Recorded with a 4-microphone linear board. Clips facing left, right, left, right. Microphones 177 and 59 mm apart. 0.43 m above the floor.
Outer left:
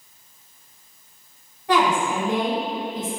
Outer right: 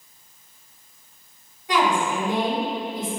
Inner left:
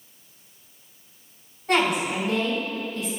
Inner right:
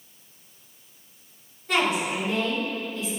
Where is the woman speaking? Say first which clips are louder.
Outer left 2 dB, inner left 2 dB; 65° left (ahead or behind), 1.8 m.